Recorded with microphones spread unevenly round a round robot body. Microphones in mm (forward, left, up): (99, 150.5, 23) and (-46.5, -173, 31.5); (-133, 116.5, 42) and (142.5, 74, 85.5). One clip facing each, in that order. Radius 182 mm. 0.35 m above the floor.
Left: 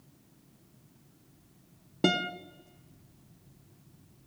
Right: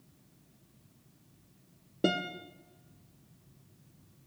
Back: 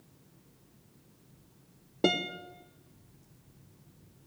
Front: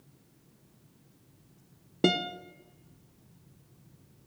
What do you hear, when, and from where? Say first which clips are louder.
2.0 s a guitar: left 2 dB, front 2 dB; 45° left, 0.8 m